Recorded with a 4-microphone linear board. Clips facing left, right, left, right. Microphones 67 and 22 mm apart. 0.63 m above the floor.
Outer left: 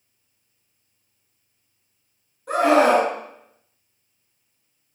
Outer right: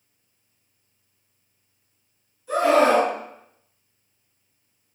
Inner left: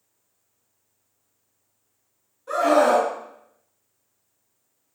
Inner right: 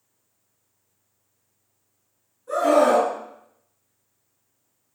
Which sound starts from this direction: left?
A scream, at 2.5 s.